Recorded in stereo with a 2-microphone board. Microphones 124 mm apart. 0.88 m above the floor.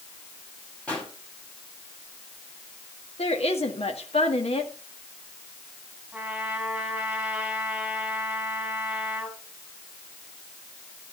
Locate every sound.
0.9 s a pop: 10° left (ahead or behind), 6.5 m
3.2 s a woman speaking: 55° left (ahead or behind), 1.9 m
6.1 s a trumpet: 5° right (ahead or behind), 4.5 m